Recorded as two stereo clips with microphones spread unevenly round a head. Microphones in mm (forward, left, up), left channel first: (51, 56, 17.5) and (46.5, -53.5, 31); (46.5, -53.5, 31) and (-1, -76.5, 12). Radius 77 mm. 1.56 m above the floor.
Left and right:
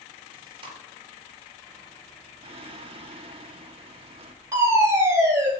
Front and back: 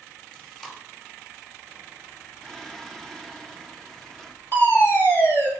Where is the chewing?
50° right, 4.5 m.